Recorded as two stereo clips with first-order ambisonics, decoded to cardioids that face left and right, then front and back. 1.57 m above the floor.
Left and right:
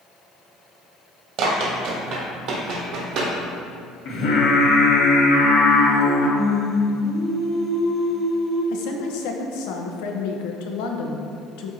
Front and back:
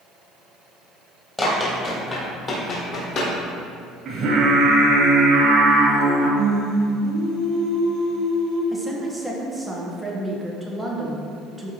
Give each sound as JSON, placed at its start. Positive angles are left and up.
{"t": 1.4, "sound": "running footsteps", "azimuth_deg": -75, "distance_m": 2.0}
{"t": 4.0, "sound": "singing", "azimuth_deg": 125, "distance_m": 1.9}
{"t": 6.4, "sound": "singing", "azimuth_deg": 170, "distance_m": 1.6}
{"t": 8.7, "sound": "a woman speaking", "azimuth_deg": 90, "distance_m": 1.2}